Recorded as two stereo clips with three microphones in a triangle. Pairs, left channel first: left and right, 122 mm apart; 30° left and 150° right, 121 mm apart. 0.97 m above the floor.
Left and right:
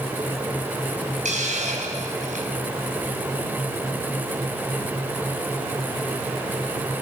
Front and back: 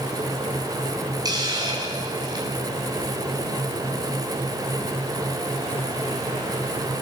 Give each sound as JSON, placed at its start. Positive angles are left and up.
{"t": 1.2, "sound": "a hiss", "azimuth_deg": -95, "distance_m": 4.5}